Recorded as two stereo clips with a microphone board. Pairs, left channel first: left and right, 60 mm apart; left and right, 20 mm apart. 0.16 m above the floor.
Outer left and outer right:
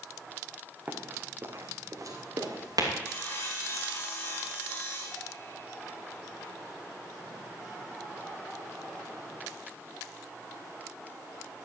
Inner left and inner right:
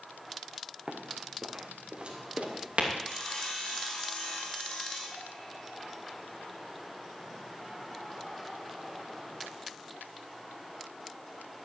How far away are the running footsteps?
About 3 m.